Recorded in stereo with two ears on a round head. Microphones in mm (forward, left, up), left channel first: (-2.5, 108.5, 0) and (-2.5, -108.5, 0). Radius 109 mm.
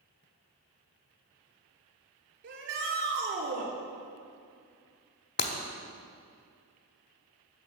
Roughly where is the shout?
Right.